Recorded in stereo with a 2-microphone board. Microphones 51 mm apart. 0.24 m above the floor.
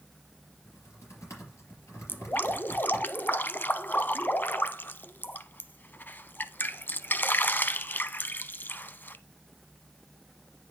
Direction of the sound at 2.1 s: 40° left (ahead or behind).